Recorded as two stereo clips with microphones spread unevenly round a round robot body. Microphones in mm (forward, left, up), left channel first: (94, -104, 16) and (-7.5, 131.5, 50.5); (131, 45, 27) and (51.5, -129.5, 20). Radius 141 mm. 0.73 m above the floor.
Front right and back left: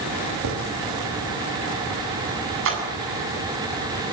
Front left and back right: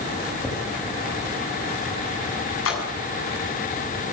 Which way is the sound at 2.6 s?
75° left.